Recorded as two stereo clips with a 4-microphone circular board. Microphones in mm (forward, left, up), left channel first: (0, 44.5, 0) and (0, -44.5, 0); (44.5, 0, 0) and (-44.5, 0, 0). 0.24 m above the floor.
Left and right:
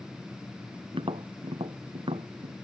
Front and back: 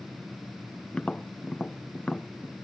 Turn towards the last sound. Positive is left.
turn(degrees=-80)